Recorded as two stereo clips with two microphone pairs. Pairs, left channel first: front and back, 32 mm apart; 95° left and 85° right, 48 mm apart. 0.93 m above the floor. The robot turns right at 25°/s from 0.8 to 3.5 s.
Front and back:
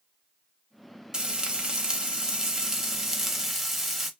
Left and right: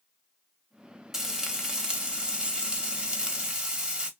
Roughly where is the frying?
Behind right.